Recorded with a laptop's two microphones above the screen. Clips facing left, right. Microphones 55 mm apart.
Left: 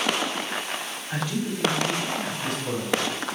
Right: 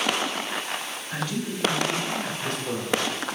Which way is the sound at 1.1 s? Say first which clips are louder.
Left 2 dB; 25° left (ahead or behind).